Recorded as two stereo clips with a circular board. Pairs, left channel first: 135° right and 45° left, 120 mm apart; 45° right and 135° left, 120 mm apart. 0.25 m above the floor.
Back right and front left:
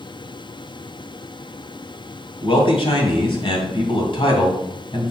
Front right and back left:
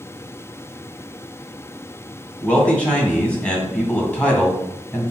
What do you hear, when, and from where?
2.4 s a man speaking: 120° right, 2 m